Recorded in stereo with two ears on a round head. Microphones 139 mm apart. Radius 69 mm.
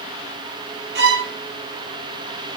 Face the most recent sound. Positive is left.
turn(degrees=-80)